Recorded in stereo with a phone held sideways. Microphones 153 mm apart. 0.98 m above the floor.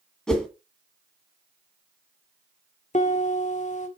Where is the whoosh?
5° left (ahead or behind), 2 m.